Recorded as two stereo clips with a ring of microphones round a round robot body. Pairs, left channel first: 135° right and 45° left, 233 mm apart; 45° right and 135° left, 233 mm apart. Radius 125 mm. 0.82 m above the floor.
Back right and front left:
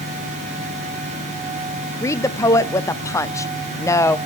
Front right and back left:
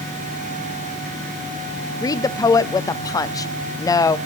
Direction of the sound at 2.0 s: 85° right.